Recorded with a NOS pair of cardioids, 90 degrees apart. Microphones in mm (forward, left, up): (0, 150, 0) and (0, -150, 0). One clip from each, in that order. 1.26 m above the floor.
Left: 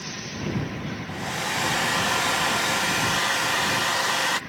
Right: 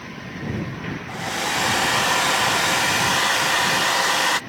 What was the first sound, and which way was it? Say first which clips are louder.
A hair dryer: right 4 dB; 15° right.